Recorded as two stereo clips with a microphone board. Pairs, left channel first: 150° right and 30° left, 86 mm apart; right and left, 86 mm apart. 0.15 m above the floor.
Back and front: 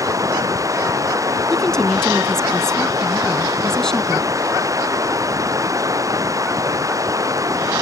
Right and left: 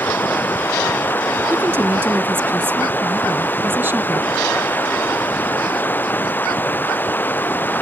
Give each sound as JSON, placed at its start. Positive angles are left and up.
{"t": 0.0, "sound": "running water", "azimuth_deg": -20}
{"t": 1.5, "sound": "a woman speaking", "azimuth_deg": 130}